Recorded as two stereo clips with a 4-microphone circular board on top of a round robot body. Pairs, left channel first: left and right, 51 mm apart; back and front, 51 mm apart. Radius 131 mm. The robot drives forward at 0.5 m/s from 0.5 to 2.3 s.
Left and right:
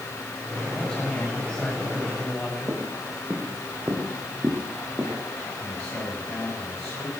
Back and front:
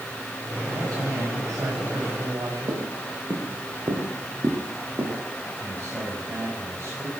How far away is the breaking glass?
I don't hear breaking glass.